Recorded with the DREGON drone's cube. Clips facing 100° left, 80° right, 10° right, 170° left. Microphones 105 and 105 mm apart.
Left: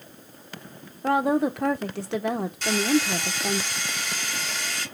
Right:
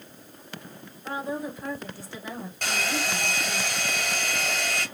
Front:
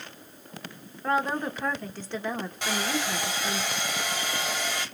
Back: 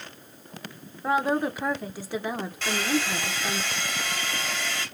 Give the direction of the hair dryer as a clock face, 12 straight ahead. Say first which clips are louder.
Left 6 dB, back 3 dB; 3 o'clock.